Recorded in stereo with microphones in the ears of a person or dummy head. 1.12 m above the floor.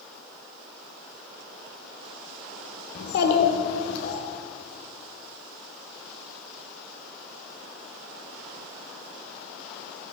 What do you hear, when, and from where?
3.0 s a child speaking: 60° left (ahead or behind), 1.5 m; by 4.2 s 75° left (ahead or behind), 2.5 m